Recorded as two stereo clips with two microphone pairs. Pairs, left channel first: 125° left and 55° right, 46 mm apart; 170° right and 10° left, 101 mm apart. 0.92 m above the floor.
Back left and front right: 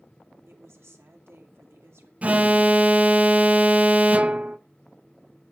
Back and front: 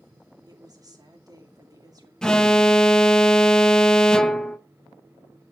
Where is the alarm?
90° right, 0.6 m.